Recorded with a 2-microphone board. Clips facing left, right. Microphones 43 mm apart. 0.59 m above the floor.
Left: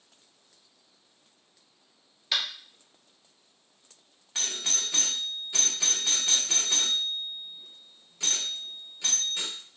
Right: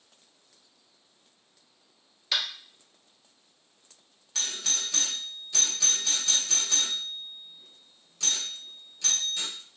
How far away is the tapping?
About 1.6 m.